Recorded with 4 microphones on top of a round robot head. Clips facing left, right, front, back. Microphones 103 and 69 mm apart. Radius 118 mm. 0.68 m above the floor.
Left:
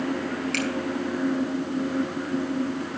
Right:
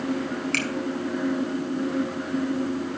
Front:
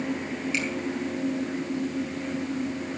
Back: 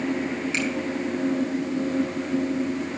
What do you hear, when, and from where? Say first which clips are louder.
0.5 s a finger snap: left 1 dB, back 1 dB; 120° right, 5 m